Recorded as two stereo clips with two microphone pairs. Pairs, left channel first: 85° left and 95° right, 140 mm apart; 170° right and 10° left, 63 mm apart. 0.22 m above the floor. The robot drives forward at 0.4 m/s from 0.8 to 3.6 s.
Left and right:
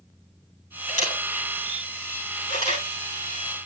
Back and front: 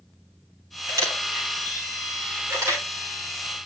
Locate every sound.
0.9 s a camera shutter: 50° left, 8 m; by 2.8 s 55° left, 7.5 m